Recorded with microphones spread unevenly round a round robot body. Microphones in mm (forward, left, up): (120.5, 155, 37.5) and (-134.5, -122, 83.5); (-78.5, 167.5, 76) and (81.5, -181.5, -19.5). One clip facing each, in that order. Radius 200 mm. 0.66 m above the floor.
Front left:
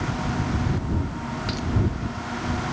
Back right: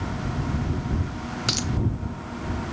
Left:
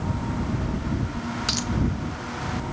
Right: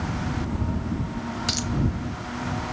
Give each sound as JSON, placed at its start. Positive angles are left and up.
{"t": 1.5, "sound": "a dropped coin", "azimuth_deg": -155}